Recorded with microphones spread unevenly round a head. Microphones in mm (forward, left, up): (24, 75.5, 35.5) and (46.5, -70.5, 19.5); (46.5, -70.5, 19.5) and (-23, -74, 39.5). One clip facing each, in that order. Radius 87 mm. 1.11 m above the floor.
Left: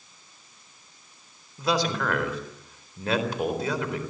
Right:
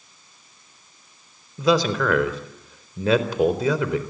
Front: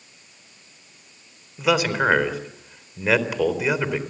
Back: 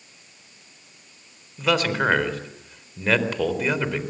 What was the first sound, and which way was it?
A man speaking, 80° right.